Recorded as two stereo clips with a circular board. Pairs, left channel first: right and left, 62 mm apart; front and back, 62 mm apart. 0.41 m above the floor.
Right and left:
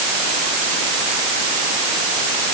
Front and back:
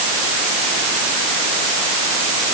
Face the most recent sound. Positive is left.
No sound to turn to.